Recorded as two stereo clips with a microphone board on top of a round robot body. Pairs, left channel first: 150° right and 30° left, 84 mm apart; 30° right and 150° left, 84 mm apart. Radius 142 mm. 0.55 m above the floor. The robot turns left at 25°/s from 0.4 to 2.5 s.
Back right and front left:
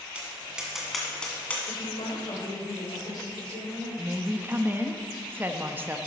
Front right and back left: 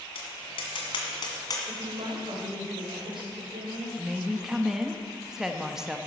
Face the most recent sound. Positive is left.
turn(degrees=70)